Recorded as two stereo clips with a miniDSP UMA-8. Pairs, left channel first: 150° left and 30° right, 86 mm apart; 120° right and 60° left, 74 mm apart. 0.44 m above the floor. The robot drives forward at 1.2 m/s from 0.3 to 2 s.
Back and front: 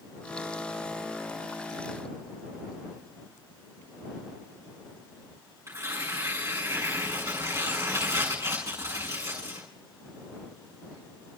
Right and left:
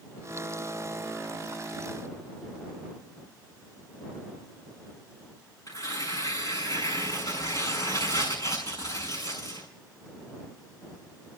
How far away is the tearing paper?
About 6.5 m.